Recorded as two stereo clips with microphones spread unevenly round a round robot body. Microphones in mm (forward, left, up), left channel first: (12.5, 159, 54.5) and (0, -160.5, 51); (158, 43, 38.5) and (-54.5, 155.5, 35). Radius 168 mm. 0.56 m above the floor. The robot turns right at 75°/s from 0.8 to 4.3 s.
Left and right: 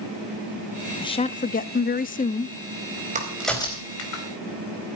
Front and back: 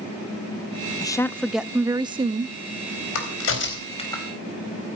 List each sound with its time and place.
1.0 s a woman speaking: 25° left, 0.6 m; by 2.6 s 145° left, 0.6 m
3.1 s a crack: 25° right, 4 m; by 4.2 s 55° left, 4 m